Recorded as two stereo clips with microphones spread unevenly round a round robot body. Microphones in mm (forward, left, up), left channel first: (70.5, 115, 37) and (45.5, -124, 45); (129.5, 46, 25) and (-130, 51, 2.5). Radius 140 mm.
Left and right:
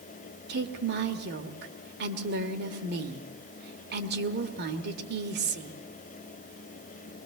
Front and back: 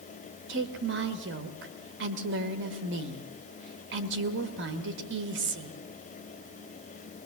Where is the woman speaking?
140° right, 1.6 m.